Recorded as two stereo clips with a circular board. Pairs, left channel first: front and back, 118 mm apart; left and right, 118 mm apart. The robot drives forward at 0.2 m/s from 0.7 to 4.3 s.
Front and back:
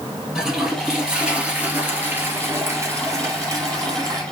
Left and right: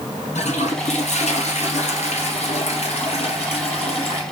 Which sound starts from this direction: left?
A toilet flushing, at 0.3 s.